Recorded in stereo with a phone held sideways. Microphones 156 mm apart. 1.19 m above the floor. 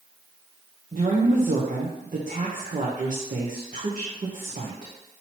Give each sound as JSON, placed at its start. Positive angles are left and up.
{"t": 0.9, "sound": "a woman speaking", "side_deg": -55, "distance_m": 0.8}